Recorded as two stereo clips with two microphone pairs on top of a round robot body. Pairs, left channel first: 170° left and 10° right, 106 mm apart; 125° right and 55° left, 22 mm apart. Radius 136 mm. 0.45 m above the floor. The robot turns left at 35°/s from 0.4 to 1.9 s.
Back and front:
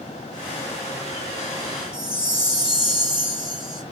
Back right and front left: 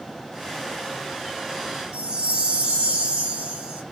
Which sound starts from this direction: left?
A chime, at 1.9 s.